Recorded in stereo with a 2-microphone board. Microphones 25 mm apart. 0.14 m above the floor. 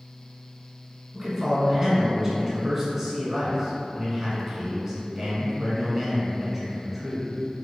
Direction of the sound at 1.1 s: 20° right (ahead or behind).